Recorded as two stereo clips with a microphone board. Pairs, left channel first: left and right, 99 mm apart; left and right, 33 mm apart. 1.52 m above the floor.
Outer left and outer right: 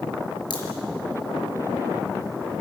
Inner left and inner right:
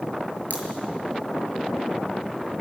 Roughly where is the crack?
Left.